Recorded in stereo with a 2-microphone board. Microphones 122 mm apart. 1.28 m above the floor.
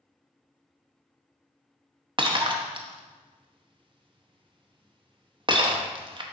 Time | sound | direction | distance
2.2 | breaking glass | 40° right (ahead or behind) | 0.7 m